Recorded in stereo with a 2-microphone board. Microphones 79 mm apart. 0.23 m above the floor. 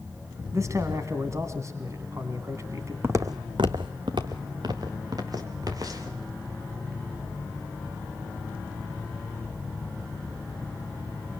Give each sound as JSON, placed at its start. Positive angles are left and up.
{"t": 0.5, "sound": "a man speaking", "side_deg": -40, "distance_m": 2.0}
{"t": 3.0, "sound": "footsteps", "side_deg": -35, "distance_m": 1.0}